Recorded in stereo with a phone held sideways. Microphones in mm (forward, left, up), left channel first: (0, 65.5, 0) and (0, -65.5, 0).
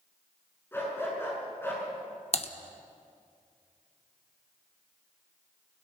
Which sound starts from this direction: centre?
A dog barking, at 0.7 s.